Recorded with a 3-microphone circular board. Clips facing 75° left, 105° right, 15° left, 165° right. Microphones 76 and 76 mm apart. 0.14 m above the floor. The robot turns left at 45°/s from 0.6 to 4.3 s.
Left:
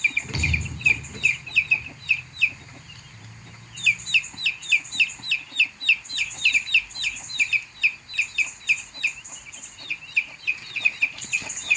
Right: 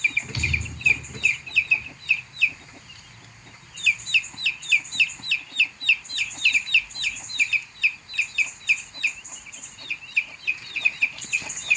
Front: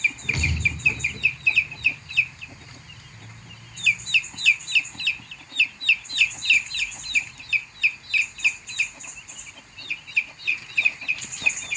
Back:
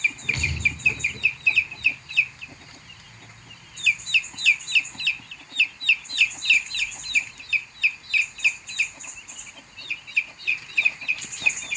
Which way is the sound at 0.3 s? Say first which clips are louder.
Left 1 dB, front 1 dB; 90° left.